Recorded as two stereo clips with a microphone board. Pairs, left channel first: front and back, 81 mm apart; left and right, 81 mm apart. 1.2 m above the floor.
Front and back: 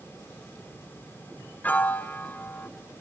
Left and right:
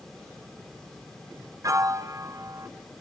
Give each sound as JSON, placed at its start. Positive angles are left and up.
{"t": 1.6, "sound": "a piano", "azimuth_deg": -60, "distance_m": 0.7}